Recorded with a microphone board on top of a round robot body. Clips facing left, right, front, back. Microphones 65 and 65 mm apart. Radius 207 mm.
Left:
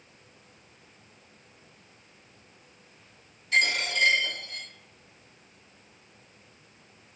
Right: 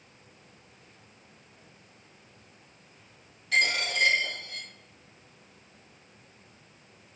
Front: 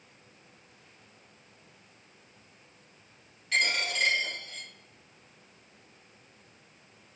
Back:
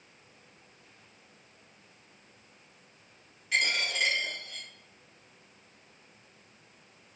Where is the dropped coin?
95° right, 2.0 m.